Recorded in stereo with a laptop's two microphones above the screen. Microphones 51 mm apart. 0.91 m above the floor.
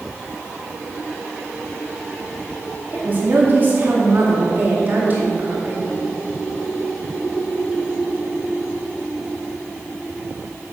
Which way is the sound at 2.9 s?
40° right (ahead or behind).